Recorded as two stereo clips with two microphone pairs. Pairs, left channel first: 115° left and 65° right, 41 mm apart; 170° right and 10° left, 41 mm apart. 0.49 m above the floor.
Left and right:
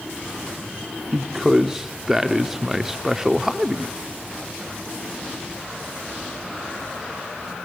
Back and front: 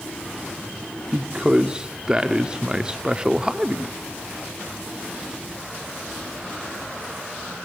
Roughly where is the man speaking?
Ahead.